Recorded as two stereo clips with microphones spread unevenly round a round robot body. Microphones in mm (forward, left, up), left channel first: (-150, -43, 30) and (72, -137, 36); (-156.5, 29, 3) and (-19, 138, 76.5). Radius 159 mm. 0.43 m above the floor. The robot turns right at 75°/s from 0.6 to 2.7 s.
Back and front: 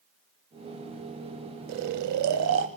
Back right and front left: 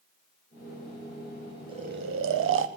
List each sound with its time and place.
1.7 s snoring: 40° right, 0.8 m; by 2.7 s 35° left, 0.8 m